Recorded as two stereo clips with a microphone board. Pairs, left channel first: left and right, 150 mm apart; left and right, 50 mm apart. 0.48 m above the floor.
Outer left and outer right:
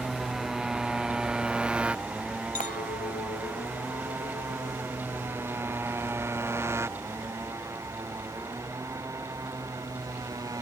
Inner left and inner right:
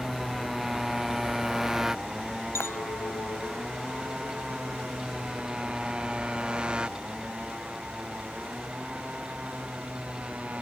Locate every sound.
0.0 s a motorcycle: centre (ahead or behind); by 10.6 s 20° right (ahead or behind)
2.5 s a clink: 60° left (ahead or behind)